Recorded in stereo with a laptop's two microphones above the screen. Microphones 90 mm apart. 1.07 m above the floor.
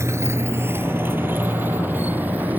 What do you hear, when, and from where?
0.0 s a motorcycle: 30° right (ahead or behind); by 2.6 s 20° right (ahead or behind)